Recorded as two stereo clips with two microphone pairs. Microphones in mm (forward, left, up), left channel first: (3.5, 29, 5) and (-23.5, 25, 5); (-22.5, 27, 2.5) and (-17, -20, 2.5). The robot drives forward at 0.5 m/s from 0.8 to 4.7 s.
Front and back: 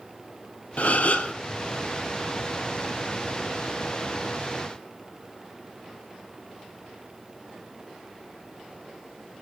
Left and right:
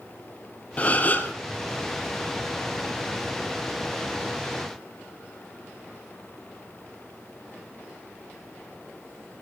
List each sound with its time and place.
0.8 s a gasp: 40° left, 1.3 m; by 1.3 s 45° left, 1.1 m